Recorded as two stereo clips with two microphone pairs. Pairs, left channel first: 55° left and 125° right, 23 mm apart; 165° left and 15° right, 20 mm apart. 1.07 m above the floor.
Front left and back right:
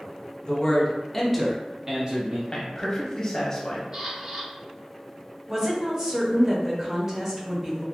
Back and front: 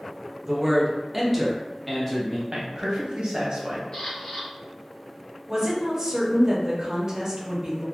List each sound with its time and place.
0.4 s a man speaking: 50° left, 0.8 m; by 2.4 s 125° right, 0.7 m
2.5 s a man speaking: straight ahead, 0.8 m
3.9 s a camera shutter: 175° left, 1.6 m
5.5 s a woman speaking: 60° right, 0.8 m